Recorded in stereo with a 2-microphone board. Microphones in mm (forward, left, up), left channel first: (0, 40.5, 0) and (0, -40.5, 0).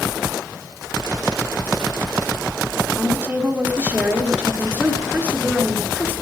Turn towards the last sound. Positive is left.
turn(degrees=-20)  # may be behind; listen again after turning